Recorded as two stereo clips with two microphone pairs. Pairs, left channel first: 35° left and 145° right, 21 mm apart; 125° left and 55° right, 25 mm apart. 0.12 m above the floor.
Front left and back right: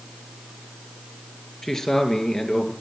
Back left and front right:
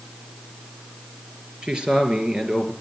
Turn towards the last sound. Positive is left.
turn(degrees=-20)